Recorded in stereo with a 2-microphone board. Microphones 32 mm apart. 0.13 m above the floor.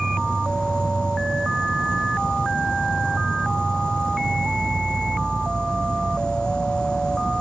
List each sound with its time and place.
0.0 s an insect: 25° left (ahead or behind)